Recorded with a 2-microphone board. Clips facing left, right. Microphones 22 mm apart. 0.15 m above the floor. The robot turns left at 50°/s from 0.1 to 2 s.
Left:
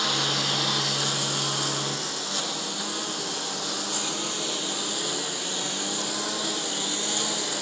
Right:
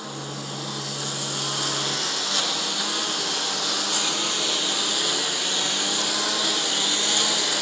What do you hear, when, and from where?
0.0 s a lawn mower: 65° left (ahead or behind); by 7.6 s 35° right (ahead or behind)